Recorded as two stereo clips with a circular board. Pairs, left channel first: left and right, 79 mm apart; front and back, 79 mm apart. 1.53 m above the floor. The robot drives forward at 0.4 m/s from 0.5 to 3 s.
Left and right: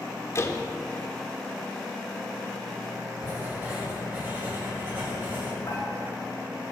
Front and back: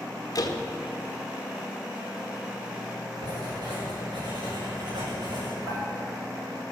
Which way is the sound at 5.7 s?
140° left.